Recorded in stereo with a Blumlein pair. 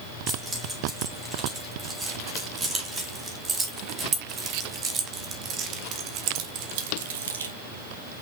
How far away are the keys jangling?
About 4 m.